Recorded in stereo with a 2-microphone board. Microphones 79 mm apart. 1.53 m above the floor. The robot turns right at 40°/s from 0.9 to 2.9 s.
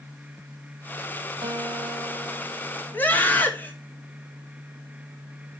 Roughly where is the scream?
Left.